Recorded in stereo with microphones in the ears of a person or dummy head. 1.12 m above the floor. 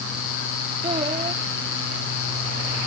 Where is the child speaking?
25° right (ahead or behind).